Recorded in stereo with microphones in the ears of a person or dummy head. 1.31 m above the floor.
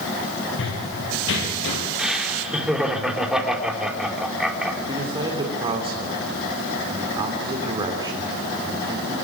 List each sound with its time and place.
0.6 s running footsteps: 70° left (ahead or behind), 5 m; by 1.8 s 65° left (ahead or behind), 6.5 m
2.0 s laughter: 5° right (ahead or behind), 4 m
4.9 s a man speaking: 20° right (ahead or behind), 3.5 m